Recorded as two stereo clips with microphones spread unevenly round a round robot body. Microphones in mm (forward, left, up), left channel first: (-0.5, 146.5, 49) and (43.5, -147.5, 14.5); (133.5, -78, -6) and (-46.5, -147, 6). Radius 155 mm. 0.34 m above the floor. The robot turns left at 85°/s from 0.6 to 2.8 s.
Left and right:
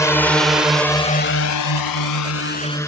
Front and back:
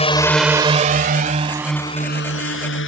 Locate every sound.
0.0 s a drone: 15° left